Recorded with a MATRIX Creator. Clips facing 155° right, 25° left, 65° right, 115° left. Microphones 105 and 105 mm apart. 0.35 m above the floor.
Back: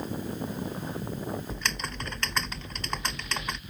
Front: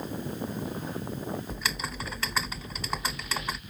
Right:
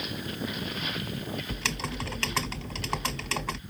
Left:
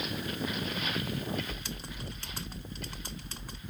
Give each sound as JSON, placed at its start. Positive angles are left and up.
{"t": 1.5, "sound": "typing on a keyboard", "azimuth_deg": -65}